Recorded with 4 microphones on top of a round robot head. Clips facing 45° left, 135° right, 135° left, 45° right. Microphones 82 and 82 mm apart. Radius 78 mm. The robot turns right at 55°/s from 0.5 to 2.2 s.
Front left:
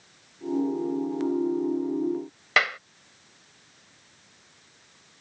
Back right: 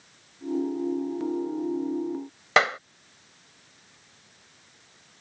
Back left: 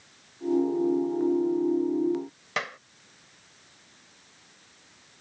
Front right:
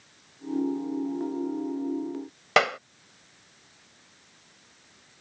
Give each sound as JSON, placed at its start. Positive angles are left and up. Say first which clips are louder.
{"t": 2.6, "sound": "a clap", "louder": "back right 3 dB, front right 11 dB", "azimuth_deg": -70}